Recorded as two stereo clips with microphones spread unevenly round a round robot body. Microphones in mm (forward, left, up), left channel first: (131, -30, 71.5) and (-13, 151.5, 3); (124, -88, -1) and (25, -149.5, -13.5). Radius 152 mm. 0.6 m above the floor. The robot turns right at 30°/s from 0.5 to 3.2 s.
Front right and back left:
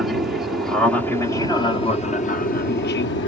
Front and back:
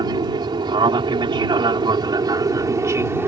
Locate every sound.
0.0 s an aircraft: 170° right; by 3.3 s 90° right